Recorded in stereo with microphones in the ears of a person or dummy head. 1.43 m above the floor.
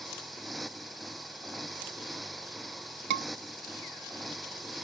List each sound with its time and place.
0.0 s a motorcycle: centre (ahead or behind)
3.1 s a scream: 55° right (ahead or behind)